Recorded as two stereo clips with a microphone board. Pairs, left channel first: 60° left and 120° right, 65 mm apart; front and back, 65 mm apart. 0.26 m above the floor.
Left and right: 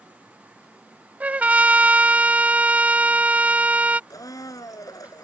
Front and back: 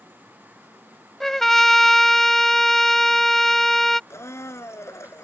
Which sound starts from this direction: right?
A trumpet, at 1.2 s.